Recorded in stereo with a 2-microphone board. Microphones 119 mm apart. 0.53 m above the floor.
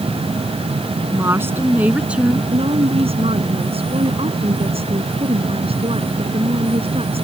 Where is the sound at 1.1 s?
25° right (ahead or behind); by 2.4 s 5° right (ahead or behind).